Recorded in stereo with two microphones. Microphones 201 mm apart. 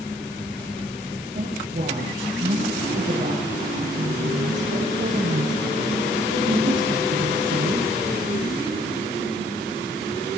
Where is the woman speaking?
40° right (ahead or behind), 9 m; by 7.9 s 75° right (ahead or behind), 7.5 m.